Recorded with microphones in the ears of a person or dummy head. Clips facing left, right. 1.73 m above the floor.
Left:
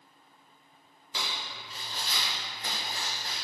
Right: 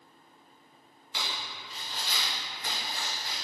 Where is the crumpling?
35° left (ahead or behind), 2 m.